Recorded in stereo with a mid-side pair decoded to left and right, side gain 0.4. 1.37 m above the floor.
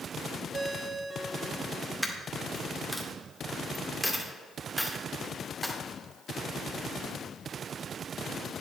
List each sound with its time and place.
0.5 s a ringtone: 40° right, 3.5 m
2.0 s a dropped coin: straight ahead, 2 m